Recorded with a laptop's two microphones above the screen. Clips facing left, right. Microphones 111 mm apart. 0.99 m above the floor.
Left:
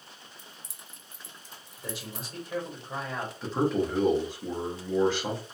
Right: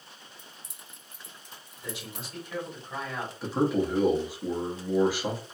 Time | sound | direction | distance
0.4 | keys jangling | 65° right (ahead or behind) | 0.5 m
1.8 | a man speaking | 40° left (ahead or behind) | 1.7 m
3.4 | a man speaking | 10° right (ahead or behind) | 0.7 m